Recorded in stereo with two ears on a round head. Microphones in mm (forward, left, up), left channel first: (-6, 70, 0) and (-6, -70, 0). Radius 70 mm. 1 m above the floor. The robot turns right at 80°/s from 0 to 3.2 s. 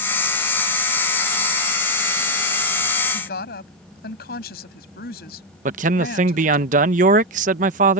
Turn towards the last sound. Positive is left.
turn(degrees=-50)  # may be behind; listen again after turning